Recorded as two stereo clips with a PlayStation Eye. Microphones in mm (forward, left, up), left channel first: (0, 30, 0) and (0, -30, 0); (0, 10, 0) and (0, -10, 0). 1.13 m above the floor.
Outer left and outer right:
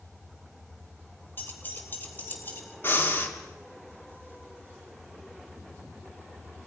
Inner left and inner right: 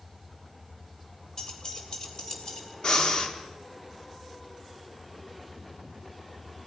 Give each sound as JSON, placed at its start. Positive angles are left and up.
{"t": 1.4, "sound": "keys jangling", "side_deg": 35, "distance_m": 3.0}
{"t": 2.8, "sound": "breathing", "side_deg": 35, "distance_m": 2.5}